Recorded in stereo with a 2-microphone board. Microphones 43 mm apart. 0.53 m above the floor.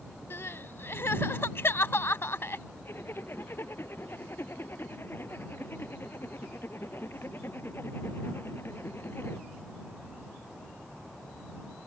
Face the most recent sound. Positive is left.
turn(degrees=60)  # may be behind; listen again after turning